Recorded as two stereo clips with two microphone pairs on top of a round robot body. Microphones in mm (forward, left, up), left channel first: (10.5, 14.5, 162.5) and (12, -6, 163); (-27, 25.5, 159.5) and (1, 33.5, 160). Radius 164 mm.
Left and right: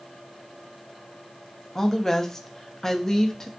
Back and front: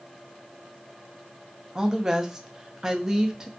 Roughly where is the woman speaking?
Left.